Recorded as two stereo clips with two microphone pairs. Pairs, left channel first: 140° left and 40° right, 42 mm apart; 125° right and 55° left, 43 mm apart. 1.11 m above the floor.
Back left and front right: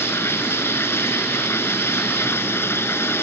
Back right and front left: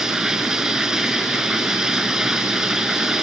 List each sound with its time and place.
0.0 s running water: 135° left